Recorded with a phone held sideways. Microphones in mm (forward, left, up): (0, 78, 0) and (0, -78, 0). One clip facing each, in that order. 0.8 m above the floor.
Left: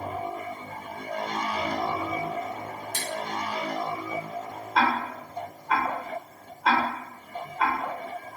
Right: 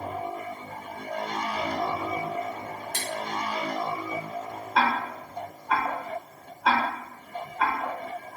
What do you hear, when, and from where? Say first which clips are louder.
2.9 s scissors: even; 65° right (ahead or behind), 0.8 m
4.8 s ticking: left 1 dB; 5° left (ahead or behind), 0.7 m